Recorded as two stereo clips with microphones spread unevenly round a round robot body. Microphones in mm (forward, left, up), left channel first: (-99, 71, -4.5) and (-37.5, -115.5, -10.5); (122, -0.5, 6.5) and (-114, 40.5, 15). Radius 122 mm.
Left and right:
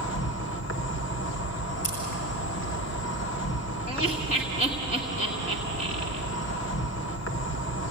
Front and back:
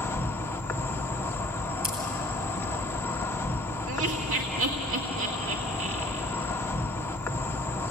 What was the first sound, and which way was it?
An insect, 70° left.